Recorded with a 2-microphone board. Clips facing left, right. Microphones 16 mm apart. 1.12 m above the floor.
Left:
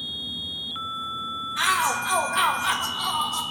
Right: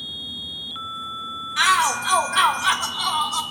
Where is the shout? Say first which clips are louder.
Right 5 dB; 40° right (ahead or behind), 0.8 m.